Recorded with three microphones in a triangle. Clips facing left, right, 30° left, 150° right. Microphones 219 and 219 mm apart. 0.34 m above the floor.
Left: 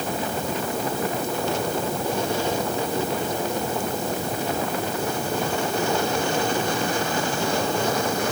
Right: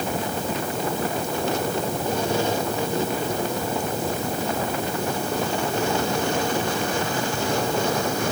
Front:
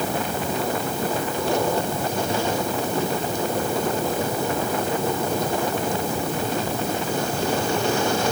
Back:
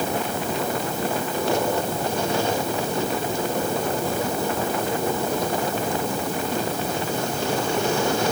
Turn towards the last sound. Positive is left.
No sound to turn to.